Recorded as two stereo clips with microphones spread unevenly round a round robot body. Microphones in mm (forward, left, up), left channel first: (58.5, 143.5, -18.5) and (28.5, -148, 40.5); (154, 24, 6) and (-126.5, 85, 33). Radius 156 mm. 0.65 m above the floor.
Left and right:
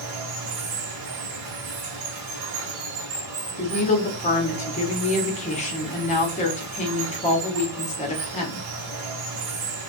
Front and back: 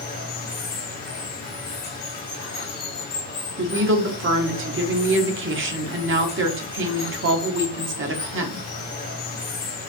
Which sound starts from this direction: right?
Running water, at 0.0 s.